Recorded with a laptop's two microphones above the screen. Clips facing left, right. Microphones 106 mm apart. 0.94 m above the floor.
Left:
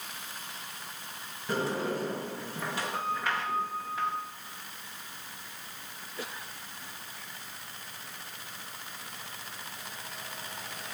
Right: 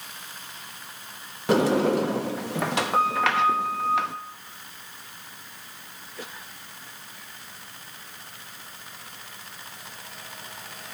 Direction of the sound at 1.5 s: 80° right.